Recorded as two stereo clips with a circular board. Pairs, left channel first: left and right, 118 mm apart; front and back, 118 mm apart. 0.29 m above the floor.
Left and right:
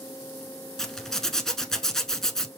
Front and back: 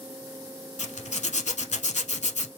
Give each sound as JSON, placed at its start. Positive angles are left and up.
{"t": 0.8, "sound": "a zipper", "azimuth_deg": 5, "distance_m": 0.6}